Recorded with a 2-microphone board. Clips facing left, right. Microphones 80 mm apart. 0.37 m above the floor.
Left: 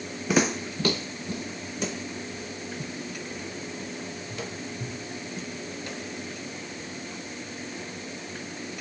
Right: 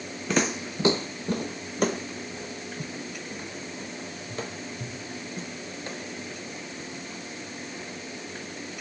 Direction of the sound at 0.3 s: 5° left (ahead or behind).